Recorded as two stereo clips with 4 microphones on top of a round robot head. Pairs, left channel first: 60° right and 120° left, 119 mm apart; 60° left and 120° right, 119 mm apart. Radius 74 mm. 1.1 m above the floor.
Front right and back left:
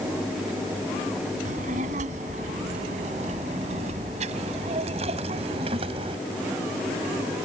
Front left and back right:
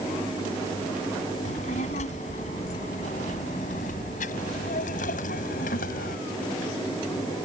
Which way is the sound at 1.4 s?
90° left.